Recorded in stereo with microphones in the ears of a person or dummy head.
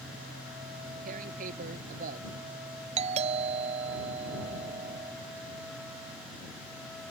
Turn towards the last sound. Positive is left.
turn(degrees=-40)  # may be behind; listen again after turning